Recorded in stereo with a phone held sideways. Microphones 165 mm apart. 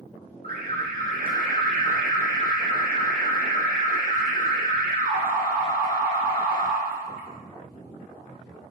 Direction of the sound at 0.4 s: 70° right (ahead or behind).